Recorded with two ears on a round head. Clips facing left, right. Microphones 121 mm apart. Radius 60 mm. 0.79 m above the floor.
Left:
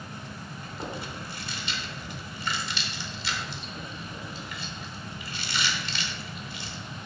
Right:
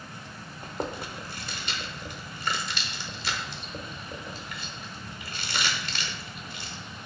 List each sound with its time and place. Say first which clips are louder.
0.6 s chewing: right 4 dB; 40° right (ahead or behind), 1.0 m